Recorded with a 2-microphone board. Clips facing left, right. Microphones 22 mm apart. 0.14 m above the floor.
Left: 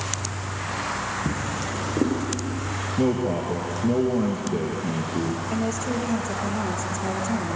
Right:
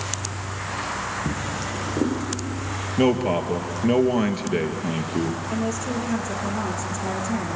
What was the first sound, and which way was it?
A drawer, 5° left (ahead or behind).